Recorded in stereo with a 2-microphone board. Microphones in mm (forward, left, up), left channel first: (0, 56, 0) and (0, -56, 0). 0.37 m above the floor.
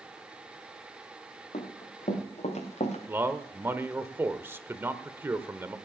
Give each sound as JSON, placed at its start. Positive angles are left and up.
{"t": 1.5, "sound": "running footsteps", "side_deg": 85, "distance_m": 5.0}
{"t": 3.1, "sound": "a man speaking", "side_deg": -20, "distance_m": 0.9}